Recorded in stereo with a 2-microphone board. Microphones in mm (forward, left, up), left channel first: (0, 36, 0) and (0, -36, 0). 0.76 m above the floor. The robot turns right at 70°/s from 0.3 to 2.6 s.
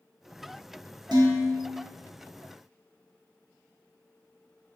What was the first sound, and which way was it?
Dishes clattering, 95° right.